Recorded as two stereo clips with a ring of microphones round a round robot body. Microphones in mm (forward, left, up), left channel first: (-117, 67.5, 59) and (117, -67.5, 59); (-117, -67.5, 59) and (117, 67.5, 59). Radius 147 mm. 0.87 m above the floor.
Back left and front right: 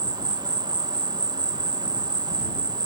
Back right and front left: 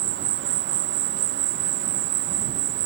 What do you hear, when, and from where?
0.0 s an insect: 40° left